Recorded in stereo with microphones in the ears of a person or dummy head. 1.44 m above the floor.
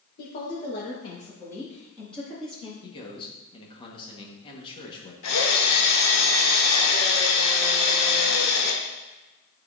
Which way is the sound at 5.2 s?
85° left.